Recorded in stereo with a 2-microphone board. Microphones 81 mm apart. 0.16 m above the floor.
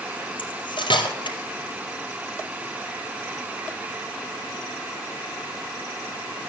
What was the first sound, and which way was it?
Cutlery clinking, 75° left (ahead or behind).